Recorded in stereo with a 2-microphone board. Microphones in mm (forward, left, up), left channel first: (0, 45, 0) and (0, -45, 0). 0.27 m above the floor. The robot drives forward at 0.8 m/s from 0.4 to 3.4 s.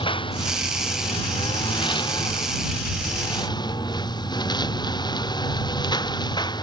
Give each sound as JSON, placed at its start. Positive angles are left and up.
{"t": 0.0, "sound": "a lawn mower", "side_deg": 60}